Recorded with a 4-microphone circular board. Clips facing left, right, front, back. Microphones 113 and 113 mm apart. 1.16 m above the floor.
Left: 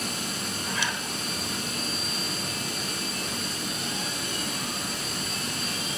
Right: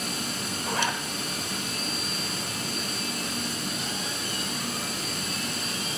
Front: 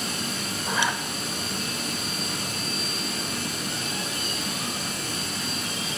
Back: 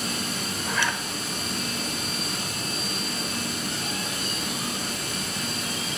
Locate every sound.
0.7 s a zipper: 65° right, 1.2 m